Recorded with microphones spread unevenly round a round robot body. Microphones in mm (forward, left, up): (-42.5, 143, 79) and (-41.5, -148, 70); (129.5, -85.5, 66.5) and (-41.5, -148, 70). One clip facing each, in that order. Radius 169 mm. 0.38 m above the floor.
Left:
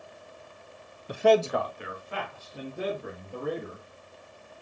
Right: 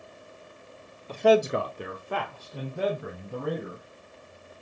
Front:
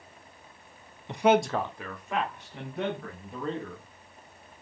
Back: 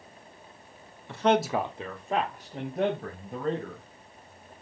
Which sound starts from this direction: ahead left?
A man speaking, at 1.1 s.